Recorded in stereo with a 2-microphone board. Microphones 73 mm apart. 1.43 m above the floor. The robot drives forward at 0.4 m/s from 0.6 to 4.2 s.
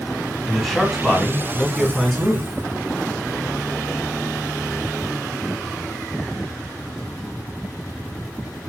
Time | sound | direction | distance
0.5 | a man speaking | centre (ahead or behind) | 1.7 m